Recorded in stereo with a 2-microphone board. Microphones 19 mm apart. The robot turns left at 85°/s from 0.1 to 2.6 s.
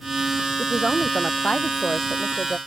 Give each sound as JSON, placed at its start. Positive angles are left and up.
{"t": 0.6, "sound": "a woman speaking", "azimuth_deg": -170}